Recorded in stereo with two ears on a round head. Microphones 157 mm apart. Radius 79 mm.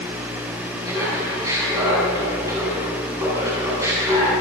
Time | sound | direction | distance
0.8 | laughter | 15° right (ahead or behind) | 7 m